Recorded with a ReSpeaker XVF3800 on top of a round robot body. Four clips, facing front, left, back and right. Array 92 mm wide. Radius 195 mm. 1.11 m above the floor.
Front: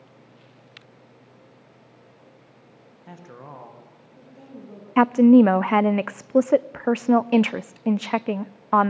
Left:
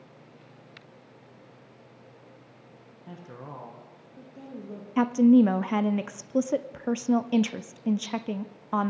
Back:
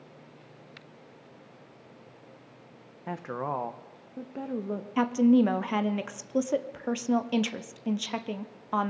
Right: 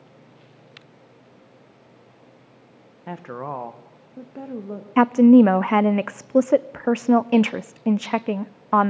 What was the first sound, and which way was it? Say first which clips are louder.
A woman speaking: right 12 dB, back 9 dB; 125° right.